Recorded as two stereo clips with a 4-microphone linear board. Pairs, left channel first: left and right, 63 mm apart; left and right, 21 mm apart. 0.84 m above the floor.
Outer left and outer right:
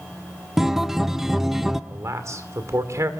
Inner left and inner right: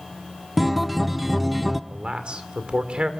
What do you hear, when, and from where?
0.6 s a guitar: 5° right (ahead or behind), 0.7 m
1.9 s a man speaking: 55° right (ahead or behind), 2 m